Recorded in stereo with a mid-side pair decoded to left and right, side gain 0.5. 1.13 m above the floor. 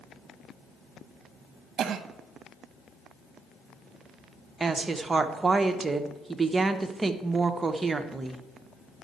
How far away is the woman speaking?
About 1.0 m.